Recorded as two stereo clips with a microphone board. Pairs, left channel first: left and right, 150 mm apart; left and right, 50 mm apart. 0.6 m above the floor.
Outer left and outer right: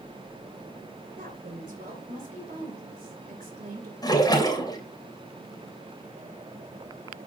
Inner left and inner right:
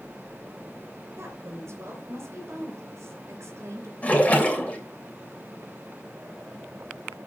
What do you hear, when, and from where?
1.2 s a woman speaking: 70° right (ahead or behind), 3 m
4.0 s a splash: 25° left (ahead or behind), 3 m